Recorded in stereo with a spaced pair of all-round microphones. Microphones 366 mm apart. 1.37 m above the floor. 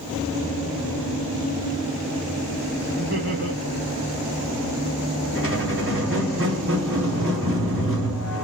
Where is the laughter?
30° right (ahead or behind), 2.5 m.